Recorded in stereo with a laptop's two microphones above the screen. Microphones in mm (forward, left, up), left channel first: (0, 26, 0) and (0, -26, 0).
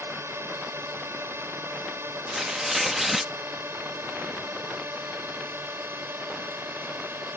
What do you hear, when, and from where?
0.0 s a drone: 55° right (ahead or behind); by 7.4 s 45° right (ahead or behind)
2.3 s tearing paper: 5° right (ahead or behind)